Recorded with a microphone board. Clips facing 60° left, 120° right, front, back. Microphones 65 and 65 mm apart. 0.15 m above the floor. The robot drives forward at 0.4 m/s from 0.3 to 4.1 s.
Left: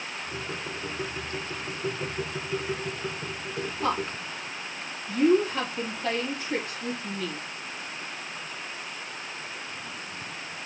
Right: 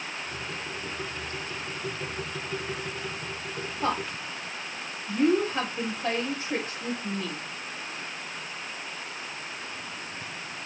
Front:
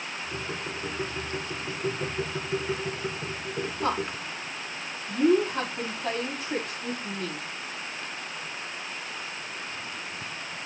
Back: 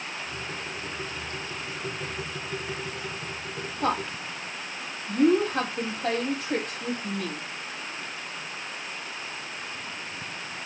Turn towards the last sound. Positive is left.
turn(degrees=170)